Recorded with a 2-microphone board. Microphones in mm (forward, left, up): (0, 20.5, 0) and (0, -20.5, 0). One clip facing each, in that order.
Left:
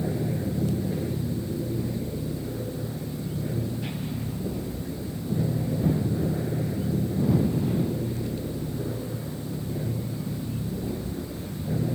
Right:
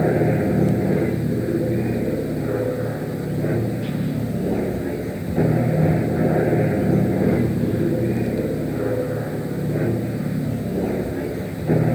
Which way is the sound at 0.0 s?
60° right (ahead or behind).